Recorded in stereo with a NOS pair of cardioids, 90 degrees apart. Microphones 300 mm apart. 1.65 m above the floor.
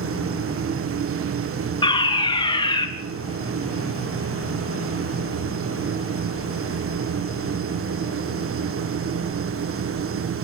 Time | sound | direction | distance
0.0 | a machine running | 45° right | 1.5 m
1.8 | a fire alarm | 15° left | 3.5 m